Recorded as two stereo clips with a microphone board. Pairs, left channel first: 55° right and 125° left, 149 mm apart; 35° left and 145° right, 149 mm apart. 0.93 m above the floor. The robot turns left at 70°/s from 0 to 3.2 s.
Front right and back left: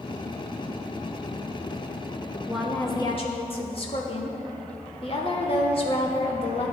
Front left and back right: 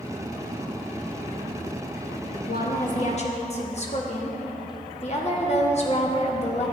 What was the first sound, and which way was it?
A woman speaking, 45° left.